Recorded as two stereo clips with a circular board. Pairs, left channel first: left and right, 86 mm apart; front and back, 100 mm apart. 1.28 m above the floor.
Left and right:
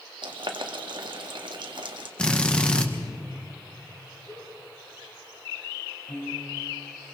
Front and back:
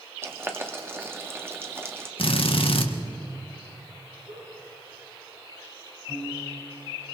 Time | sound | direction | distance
0.2 | boiling | 115° right | 1.7 m
2.2 | a drill | 10° left | 1.5 m
4.3 | a giggle | 165° left | 9 m
6.1 | a piano | 115° left | 6 m